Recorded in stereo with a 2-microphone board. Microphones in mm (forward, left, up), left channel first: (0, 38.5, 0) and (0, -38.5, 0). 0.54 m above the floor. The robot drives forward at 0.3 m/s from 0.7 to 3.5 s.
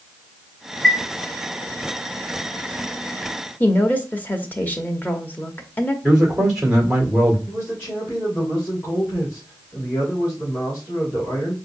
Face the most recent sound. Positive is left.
turn(degrees=30)  # may be behind; listen again after turning